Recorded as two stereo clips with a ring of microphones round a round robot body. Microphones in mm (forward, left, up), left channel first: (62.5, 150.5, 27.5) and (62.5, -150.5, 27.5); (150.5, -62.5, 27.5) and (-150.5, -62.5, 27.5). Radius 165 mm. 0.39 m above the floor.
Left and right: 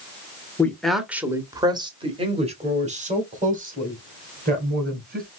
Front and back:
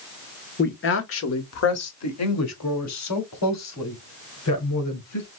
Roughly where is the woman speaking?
Ahead.